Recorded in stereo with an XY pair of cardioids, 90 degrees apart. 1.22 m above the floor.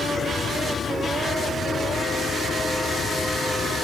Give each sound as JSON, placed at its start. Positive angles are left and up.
{"t": 0.0, "sound": "a fan", "azimuth_deg": 50}